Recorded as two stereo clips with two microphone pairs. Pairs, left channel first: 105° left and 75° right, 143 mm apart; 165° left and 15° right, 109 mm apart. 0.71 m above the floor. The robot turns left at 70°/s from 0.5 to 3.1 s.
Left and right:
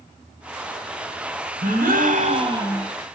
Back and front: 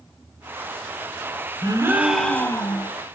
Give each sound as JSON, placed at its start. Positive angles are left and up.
{"t": 1.6, "sound": "a gasp", "azimuth_deg": -65, "distance_m": 1.3}